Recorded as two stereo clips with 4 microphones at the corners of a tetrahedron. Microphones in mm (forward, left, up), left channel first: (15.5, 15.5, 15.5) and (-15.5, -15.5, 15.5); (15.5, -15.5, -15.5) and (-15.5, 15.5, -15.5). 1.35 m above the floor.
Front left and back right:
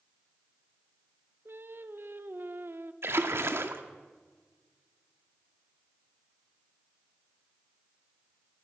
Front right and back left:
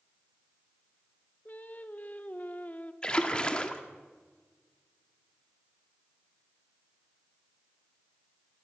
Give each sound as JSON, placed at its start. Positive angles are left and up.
{"t": 1.4, "sound": "singing", "azimuth_deg": -100, "distance_m": 1.1}
{"t": 3.0, "sound": "a splash", "azimuth_deg": -115, "distance_m": 1.7}